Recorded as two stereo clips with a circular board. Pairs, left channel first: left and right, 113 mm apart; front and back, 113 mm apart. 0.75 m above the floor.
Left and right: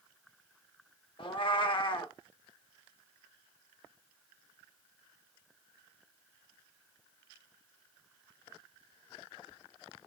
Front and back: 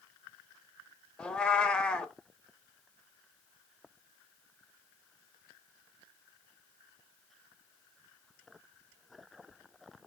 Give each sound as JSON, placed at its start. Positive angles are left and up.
{"t": 1.2, "sound": "a cat meowing", "azimuth_deg": 75, "distance_m": 0.6}